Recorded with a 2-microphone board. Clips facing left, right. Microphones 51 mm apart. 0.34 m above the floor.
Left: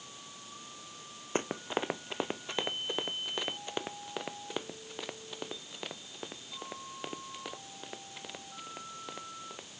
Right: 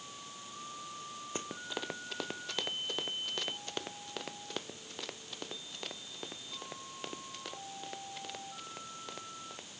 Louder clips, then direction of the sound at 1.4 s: Left 8 dB; 40° left (ahead or behind).